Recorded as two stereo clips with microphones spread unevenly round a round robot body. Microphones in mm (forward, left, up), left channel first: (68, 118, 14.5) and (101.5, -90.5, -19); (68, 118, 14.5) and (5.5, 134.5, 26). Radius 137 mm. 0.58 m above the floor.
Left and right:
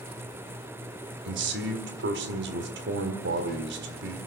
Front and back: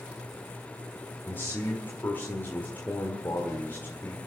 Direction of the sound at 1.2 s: 80° right.